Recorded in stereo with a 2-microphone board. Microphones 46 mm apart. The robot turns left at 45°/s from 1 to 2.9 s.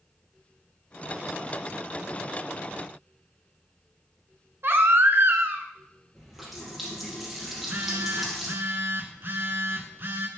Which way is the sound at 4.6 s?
60° right (ahead or behind).